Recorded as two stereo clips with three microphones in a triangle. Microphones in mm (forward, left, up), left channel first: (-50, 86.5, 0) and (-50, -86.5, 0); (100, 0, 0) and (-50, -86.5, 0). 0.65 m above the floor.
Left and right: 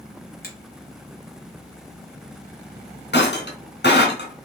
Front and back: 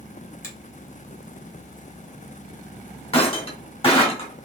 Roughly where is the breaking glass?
Left.